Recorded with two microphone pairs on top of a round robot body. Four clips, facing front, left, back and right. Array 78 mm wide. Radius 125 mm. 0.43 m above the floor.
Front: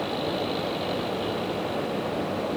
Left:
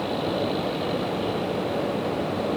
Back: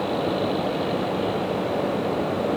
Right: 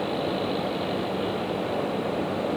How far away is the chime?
I don't hear a chime.